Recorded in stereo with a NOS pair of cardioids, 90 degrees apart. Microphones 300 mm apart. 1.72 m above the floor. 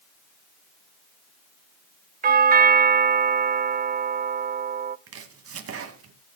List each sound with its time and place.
2.2 s a doorbell: 30° right, 0.7 m
5.1 s chopping: 50° right, 2 m